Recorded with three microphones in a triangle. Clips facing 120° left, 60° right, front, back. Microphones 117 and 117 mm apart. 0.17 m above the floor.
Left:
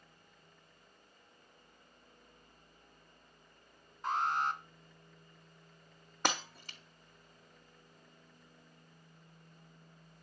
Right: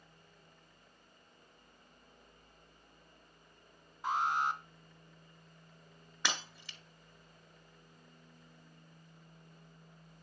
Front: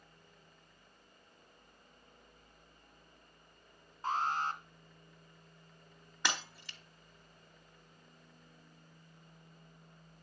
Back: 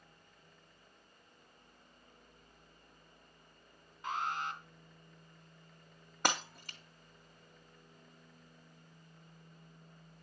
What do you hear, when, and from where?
4.0 s an alarm: 15° left, 1.8 m
6.2 s breaking glass: 155° left, 1.3 m